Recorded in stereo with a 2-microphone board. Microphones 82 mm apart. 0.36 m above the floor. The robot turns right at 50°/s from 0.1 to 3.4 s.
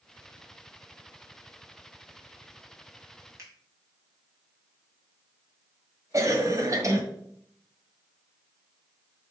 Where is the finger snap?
40° right (ahead or behind), 2.5 m.